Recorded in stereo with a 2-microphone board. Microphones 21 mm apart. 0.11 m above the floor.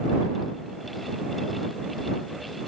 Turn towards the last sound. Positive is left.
No sound to turn to.